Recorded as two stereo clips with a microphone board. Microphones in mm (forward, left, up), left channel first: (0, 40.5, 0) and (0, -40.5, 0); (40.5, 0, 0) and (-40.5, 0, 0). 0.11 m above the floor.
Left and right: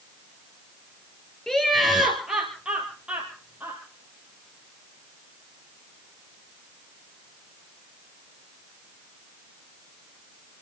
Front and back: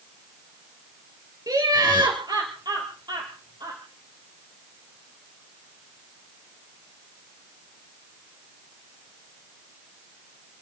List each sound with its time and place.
1.5 s laughter: 170° left, 2 m; by 3.8 s 160° right, 3.5 m